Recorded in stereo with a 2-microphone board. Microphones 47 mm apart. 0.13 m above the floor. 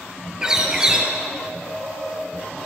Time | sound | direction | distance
0.4 | a bird | 15° right (ahead or behind) | 2.5 m